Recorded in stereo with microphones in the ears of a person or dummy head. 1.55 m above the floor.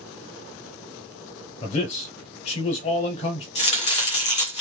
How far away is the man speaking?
About 0.6 m.